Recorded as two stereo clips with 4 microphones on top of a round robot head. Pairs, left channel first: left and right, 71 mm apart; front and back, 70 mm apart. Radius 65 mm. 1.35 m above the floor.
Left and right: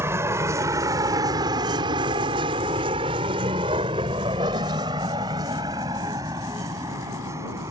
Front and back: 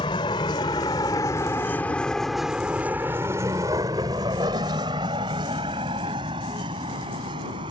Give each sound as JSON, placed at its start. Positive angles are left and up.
{"t": 0.0, "sound": "a vehicle", "azimuth_deg": -35}